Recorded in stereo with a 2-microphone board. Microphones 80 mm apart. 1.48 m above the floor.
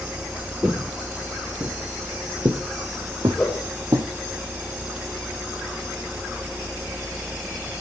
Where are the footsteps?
20° right (ahead or behind), 1.8 m; by 4.1 s 60° right (ahead or behind), 3 m.